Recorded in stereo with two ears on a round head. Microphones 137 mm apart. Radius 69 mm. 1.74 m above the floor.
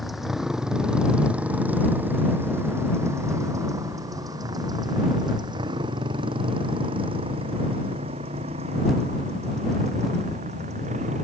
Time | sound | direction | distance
0.0 | a motorcycle | centre (ahead or behind) | ?